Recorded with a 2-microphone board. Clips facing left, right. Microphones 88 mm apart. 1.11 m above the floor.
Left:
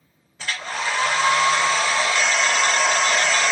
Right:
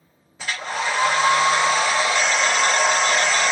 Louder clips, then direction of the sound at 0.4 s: Right 1 dB; 15° right (ahead or behind).